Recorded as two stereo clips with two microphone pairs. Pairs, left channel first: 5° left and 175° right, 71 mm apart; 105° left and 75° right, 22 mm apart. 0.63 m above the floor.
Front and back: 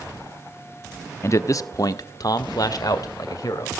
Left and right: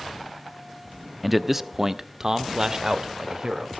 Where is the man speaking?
5° left, 0.7 m; by 3.7 s 20° right, 2.5 m.